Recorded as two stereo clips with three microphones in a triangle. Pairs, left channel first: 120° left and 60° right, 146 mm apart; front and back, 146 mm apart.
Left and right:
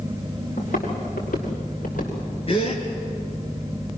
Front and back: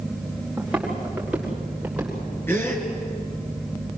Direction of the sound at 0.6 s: 95° left.